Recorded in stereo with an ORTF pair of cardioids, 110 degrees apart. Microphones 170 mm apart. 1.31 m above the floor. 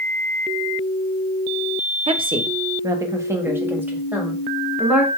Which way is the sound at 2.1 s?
35° right.